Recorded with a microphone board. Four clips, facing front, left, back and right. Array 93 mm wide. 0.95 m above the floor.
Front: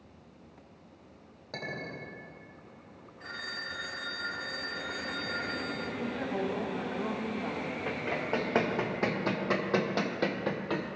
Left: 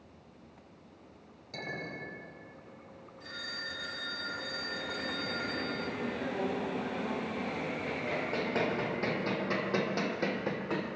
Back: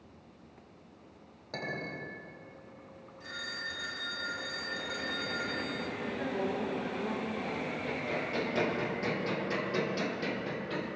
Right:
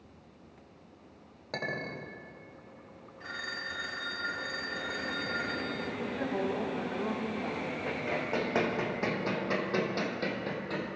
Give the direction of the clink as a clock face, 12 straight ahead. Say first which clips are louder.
Right 4 dB, back 1 dB; 3 o'clock.